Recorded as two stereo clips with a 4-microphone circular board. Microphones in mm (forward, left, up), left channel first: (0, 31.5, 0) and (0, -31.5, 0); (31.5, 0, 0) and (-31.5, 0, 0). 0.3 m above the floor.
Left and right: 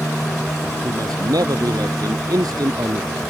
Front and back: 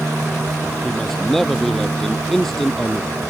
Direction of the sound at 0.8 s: 85° right.